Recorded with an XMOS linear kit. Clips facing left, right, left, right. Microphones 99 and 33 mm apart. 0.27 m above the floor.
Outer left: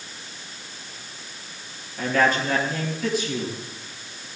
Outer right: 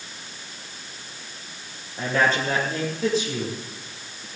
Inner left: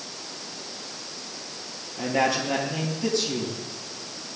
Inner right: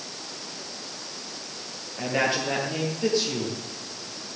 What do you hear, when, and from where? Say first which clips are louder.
2.0 s a man speaking: outer left 1 dB, inner left 1 dB; 30° right (ahead or behind), 7 m